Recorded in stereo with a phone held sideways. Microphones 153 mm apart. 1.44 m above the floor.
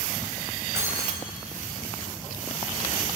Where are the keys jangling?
20° right (ahead or behind), 5 m.